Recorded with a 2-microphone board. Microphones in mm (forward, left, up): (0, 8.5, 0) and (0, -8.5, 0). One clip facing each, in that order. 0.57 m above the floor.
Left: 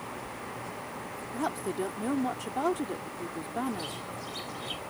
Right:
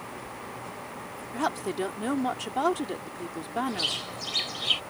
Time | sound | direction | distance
1.3 | a woman speaking | 40° right (ahead or behind) | ?
3.7 | a bird | 65° right (ahead or behind) | ?